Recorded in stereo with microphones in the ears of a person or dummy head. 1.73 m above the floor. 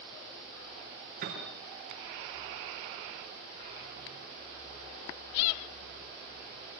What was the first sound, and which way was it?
A piano, 45° right (ahead or behind).